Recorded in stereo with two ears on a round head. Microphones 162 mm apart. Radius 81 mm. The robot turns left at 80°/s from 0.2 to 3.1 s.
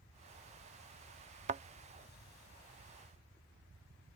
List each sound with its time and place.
1.5 s a thud: 35° right (ahead or behind); by 1.6 s 30° right (ahead or behind)